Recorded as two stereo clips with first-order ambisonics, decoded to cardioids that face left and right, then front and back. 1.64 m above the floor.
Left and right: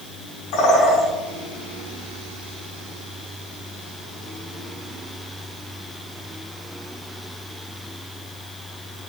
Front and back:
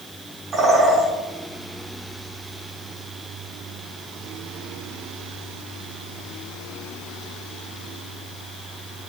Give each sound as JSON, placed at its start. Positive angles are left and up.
{"t": 0.5, "sound": "a bird", "azimuth_deg": 110, "distance_m": 7.0}